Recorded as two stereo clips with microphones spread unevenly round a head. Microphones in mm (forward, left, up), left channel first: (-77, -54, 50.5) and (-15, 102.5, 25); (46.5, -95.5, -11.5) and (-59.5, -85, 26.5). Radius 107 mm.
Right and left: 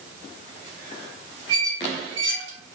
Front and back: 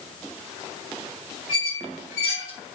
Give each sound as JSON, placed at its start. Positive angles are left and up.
{"t": 1.5, "sound": "a squeak", "azimuth_deg": 40, "distance_m": 1.9}